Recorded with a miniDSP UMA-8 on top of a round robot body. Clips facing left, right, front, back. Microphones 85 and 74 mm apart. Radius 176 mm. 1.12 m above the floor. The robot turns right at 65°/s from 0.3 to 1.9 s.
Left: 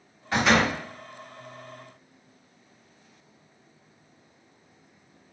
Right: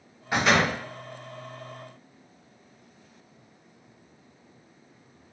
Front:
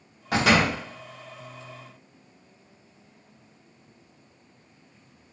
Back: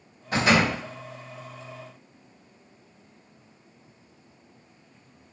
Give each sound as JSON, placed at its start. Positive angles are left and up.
{"t": 0.3, "sound": "a door slam", "azimuth_deg": -15, "distance_m": 1.1}